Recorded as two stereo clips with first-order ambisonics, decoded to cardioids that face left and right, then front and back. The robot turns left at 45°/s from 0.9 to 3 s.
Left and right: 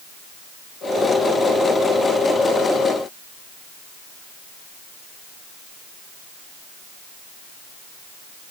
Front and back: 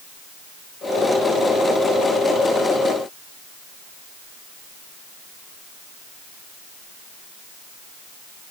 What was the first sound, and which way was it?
Only background noise.